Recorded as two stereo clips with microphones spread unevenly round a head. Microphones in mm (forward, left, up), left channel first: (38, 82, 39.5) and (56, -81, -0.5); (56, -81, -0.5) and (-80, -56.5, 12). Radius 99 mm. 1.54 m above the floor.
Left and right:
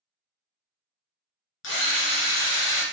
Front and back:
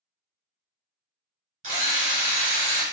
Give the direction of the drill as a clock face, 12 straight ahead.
8 o'clock.